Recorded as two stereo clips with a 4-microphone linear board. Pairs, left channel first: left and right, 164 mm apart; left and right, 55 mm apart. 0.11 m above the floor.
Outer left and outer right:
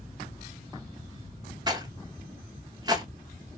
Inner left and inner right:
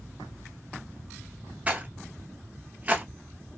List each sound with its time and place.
1.7 s a rattle: 25° right (ahead or behind), 0.9 m